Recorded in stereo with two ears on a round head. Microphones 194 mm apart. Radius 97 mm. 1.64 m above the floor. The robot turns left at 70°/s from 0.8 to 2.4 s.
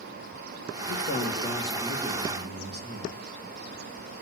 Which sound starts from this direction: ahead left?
A man speaking, at 0.9 s.